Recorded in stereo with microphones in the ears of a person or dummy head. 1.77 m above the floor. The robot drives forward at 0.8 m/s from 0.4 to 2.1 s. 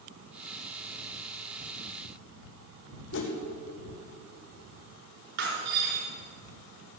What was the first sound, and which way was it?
A whoosh, 60° left (ahead or behind).